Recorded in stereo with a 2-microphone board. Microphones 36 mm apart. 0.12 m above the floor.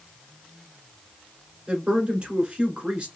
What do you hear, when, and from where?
1.7 s a woman speaking: 25° right (ahead or behind), 1.3 m